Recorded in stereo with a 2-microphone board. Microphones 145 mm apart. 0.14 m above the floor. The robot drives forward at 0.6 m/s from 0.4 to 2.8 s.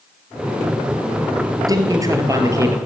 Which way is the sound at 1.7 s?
25° right (ahead or behind).